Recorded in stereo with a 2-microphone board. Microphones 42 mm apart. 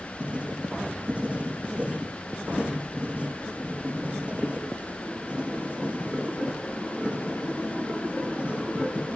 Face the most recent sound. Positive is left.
turn(degrees=-30)  # may be behind; listen again after turning